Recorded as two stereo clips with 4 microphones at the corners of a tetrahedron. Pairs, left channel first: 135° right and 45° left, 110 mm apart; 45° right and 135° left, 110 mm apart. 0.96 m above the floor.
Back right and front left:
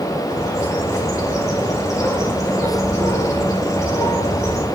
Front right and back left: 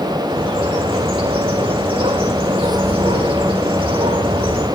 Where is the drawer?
No drawer in this recording.